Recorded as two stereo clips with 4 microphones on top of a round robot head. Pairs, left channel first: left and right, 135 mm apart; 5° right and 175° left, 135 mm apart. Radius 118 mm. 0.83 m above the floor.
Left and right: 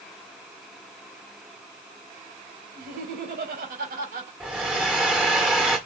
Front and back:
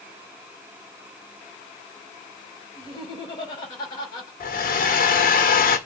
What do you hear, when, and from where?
2.8 s laughter: 70° right, 5 m
4.4 s a hair dryer: 5° right, 1.7 m